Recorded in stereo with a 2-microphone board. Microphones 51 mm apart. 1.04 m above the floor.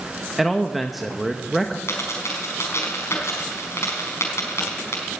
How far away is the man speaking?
About 0.8 m.